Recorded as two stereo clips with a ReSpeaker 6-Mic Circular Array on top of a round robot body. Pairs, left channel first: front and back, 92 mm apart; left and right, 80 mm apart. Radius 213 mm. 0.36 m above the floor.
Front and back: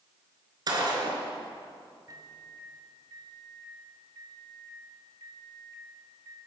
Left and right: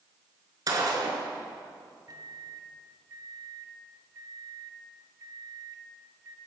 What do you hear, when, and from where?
0.7 s a gunshot: 135° right, 4.5 m
2.1 s a microwave: 130° right, 2.5 m